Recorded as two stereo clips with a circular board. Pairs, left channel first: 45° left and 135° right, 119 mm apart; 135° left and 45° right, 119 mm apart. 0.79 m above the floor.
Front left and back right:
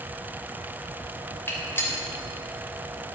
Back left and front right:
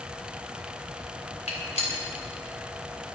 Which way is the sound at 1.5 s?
115° left.